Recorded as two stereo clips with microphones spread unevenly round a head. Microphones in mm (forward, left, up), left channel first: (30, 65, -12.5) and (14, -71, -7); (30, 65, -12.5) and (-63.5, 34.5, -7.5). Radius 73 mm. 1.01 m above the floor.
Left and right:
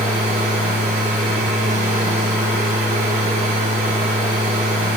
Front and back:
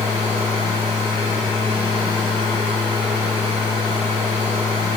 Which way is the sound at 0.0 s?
130° right.